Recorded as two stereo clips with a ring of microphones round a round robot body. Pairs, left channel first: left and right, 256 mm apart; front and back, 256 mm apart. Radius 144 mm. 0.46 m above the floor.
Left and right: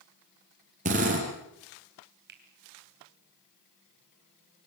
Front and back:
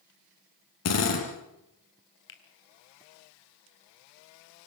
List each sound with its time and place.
0.8 s a drill: 25° right, 5.5 m
2.3 s a finger snap: 35° right, 3 m